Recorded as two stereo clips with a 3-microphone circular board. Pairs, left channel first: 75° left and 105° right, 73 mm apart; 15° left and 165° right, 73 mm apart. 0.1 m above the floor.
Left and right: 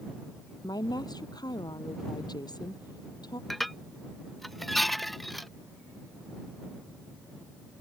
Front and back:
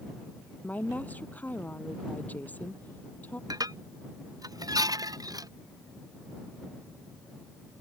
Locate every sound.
0.6 s a woman speaking: 80° left
3.5 s dishes clattering: 165° left